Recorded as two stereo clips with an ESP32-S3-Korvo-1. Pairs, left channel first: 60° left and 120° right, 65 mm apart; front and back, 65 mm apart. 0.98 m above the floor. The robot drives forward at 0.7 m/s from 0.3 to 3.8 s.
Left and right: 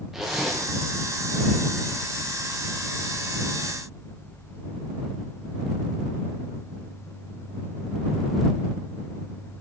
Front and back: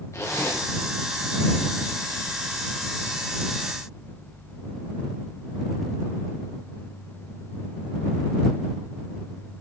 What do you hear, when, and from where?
0.1 s a zipper: 35° right, 1.6 m; by 0.6 s 40° right, 1.5 m